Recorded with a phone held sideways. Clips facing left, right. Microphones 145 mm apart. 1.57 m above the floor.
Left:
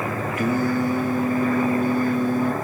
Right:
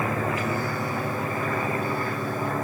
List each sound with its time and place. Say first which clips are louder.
0.4 s singing: left 7 dB; 55° left (ahead or behind), 1.4 m